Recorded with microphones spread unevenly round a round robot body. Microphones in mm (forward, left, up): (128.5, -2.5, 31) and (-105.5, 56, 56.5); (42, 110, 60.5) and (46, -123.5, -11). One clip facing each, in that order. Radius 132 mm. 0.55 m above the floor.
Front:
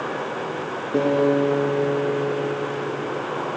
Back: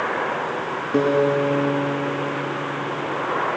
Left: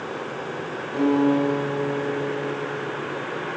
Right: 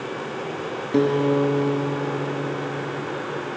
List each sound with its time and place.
0.9 s a guitar: 120° right, 3 m